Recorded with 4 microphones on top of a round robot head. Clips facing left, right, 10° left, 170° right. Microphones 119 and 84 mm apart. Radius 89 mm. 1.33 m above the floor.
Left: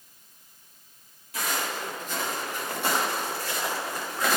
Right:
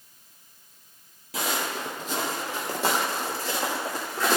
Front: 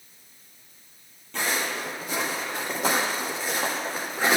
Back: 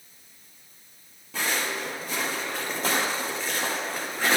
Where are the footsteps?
85° right, 3 m; by 4.4 s 75° right, 5.5 m.